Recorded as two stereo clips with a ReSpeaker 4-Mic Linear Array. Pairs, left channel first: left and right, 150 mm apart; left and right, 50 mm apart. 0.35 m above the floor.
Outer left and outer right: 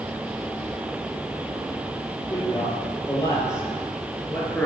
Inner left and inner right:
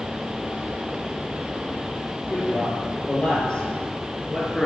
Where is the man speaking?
25° left (ahead or behind), 7.5 m; by 4.7 s 10° left (ahead or behind), 4.5 m.